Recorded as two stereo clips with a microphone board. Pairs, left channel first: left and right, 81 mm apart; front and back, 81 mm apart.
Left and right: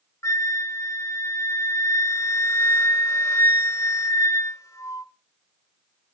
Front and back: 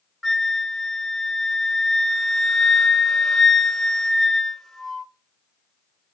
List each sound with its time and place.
0.2 s a flute: 85° left, 1.4 m